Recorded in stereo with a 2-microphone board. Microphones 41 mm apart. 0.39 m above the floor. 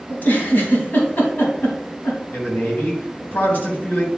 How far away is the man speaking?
About 3.5 m.